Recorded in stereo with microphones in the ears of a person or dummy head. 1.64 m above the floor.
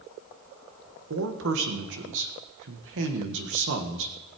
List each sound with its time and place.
1.1 s a man speaking: 70° right (ahead or behind), 1.6 m